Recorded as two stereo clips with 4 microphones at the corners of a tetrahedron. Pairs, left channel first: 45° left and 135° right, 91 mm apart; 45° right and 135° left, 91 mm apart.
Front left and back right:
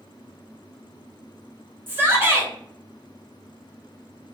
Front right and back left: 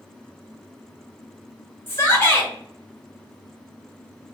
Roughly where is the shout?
Right.